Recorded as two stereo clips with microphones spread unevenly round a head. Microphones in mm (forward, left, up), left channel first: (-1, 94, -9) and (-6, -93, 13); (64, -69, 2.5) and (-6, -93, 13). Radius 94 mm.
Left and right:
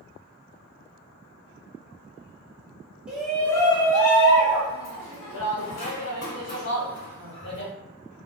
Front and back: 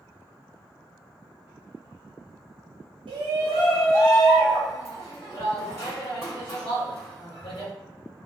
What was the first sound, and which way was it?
A shout, straight behind.